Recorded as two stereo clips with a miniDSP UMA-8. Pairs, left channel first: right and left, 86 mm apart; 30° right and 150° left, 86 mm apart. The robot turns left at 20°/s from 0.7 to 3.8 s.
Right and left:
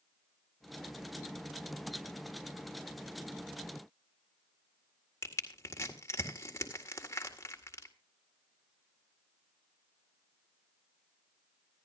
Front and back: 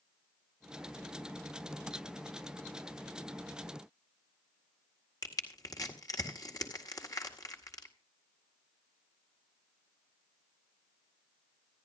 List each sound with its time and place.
5.2 s crushing: 50° right, 1.8 m